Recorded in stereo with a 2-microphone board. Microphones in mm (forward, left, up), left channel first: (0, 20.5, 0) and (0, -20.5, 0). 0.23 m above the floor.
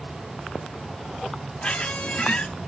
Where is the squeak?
30° left (ahead or behind), 1.1 m.